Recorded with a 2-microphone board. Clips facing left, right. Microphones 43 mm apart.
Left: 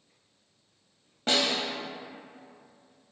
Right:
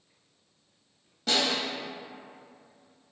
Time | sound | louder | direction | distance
1.3 | a snare drum | left 1 dB | 35° left (ahead or behind) | 0.7 m